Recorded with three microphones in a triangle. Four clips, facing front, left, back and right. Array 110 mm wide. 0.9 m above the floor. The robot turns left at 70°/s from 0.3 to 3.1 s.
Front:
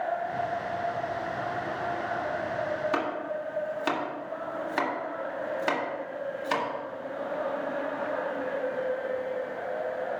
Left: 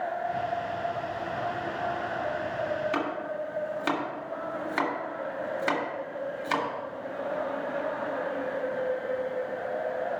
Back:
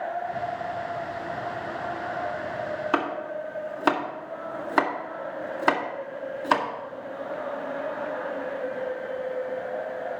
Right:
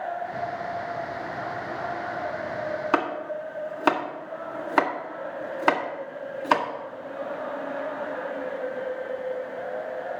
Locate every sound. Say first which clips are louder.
2.9 s chopping: right 4 dB, back 3 dB; 110° right, 1.8 m; by 6.7 s 125° right, 1.8 m